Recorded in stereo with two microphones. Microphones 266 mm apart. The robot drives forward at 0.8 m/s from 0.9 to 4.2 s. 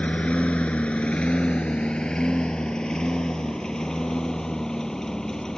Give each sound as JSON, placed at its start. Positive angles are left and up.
{"t": 0.0, "sound": "a lawn mower", "side_deg": 5}